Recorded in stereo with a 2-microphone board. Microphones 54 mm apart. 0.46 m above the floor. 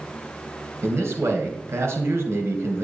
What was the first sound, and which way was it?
A man speaking, 55° right (ahead or behind).